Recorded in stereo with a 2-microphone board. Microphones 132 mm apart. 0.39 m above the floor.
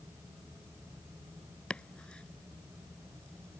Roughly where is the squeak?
No squeak in this recording.